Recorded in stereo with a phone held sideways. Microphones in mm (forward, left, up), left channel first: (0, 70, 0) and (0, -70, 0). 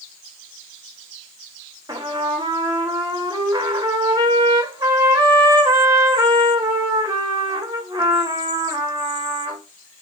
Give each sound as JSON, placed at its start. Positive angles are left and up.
{"t": 1.9, "sound": "a trumpet", "side_deg": -25, "distance_m": 0.7}